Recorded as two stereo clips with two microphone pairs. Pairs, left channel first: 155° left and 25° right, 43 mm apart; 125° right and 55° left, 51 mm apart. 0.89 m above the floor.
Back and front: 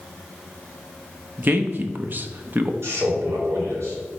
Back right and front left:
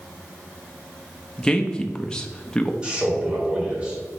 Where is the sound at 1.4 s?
50° right, 0.7 m.